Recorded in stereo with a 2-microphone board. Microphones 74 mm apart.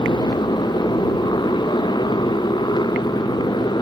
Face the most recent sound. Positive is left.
turn(degrees=85)